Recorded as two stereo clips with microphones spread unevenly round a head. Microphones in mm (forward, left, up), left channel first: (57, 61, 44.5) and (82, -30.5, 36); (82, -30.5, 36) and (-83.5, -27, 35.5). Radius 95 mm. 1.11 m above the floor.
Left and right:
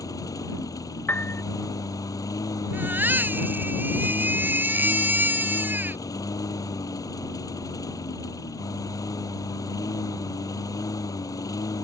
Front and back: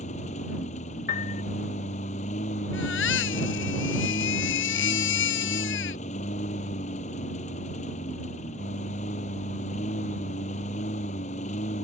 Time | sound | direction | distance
0.0 | a lawn mower | 55° left | ?
1.1 | a piano | 35° left | ?
2.7 | a baby crying | 5° right | ?